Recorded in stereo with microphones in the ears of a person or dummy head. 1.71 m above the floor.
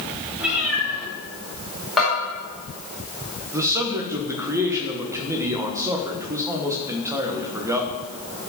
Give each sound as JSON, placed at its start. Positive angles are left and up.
{"t": 0.4, "sound": "a cat meowing", "side_deg": -5, "distance_m": 3.0}
{"t": 2.0, "sound": "a bell", "side_deg": -5, "distance_m": 4.0}
{"t": 3.5, "sound": "a man speaking", "side_deg": -15, "distance_m": 1.2}